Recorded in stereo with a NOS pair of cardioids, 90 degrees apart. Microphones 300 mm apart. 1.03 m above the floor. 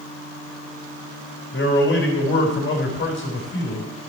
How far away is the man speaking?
About 3.5 m.